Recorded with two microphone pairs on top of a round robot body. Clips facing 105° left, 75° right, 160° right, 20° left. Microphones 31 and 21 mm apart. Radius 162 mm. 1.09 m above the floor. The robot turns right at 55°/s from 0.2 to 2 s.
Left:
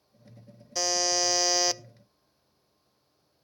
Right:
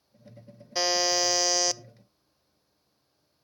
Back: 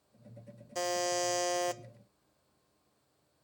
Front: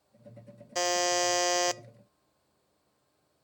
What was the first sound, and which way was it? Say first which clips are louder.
A buzzer: right 2 dB, front 5 dB; 20° right.